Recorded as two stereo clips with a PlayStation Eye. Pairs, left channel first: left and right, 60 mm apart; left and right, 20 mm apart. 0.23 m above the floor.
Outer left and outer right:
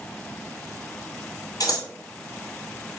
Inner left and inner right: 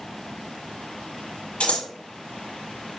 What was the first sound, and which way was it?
Scissors, 90° left.